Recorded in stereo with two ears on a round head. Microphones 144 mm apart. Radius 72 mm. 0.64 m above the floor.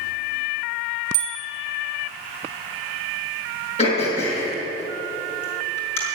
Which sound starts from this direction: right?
A bicycle bell, at 1.1 s.